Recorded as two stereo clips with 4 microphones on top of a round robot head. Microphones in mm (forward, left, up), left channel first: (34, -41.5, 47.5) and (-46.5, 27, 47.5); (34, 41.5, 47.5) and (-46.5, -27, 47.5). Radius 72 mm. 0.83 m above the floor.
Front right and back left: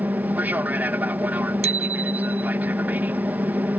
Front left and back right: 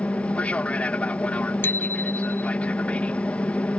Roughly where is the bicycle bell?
Left.